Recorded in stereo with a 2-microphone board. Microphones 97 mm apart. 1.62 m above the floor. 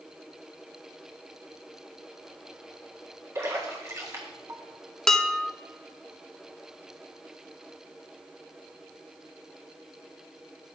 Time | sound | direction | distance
3.4 | a splash | 30° right (ahead or behind) | 1.7 m
5.1 | dishes clattering | 5° left (ahead or behind) | 0.6 m